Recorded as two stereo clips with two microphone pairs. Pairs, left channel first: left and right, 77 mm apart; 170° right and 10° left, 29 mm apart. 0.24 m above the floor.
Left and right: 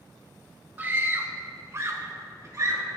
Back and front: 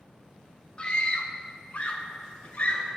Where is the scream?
140° right, 1.2 m.